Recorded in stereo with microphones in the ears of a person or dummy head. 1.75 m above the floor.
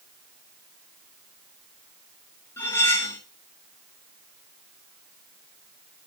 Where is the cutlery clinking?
15° left (ahead or behind), 2.5 m.